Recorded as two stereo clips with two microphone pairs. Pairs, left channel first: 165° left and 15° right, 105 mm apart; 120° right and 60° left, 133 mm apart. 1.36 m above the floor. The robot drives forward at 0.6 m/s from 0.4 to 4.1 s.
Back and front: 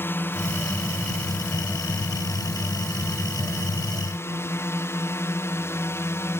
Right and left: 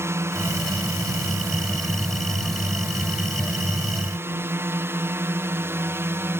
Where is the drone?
115° left; by 6.4 s 120° left.